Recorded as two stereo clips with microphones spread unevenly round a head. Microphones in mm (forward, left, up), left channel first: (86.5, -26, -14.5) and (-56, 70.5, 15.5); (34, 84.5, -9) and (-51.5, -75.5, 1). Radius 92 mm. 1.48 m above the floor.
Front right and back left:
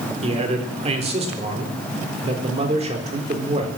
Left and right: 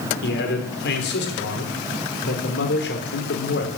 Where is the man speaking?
95° left, 4 m.